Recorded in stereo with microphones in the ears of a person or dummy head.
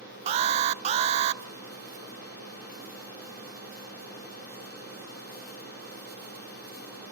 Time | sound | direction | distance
0.3 | an alarm | 35° right (ahead or behind) | 0.6 m